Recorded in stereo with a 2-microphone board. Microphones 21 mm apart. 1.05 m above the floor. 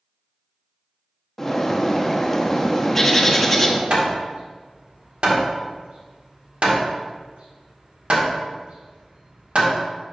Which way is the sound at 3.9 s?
70° right (ahead or behind).